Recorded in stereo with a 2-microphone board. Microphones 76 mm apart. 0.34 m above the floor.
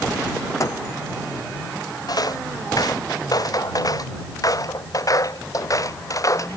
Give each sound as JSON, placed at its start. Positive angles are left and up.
{"t": 0.6, "sound": "a microwave", "side_deg": 45}
{"t": 2.1, "sound": "footsteps", "side_deg": 55}